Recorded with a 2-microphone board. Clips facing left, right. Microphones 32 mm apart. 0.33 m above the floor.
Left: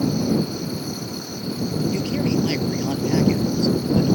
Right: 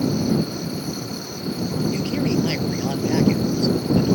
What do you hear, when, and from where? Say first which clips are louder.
1.9 s a man speaking: even; 10° right (ahead or behind)